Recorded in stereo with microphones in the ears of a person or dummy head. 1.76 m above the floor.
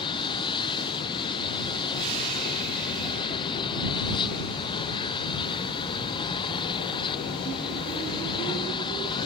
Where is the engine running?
30° left (ahead or behind).